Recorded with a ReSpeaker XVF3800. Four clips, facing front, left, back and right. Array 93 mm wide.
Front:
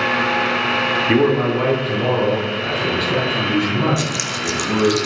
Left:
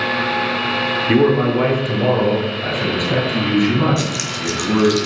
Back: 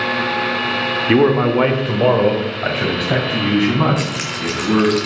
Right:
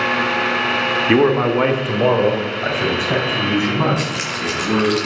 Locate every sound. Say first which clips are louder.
1.1 s a man speaking: even, back 4 dB; 110° right, 0.9 m; by 5.0 s 155° right, 4.5 m
4.0 s keys jangling: even, even; 135° right, 0.8 m